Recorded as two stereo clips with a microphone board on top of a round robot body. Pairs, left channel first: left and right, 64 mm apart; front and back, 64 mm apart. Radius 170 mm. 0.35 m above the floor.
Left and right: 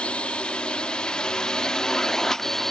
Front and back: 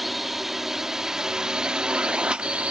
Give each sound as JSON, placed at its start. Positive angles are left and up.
{"t": 0.0, "sound": "a drone", "azimuth_deg": 95}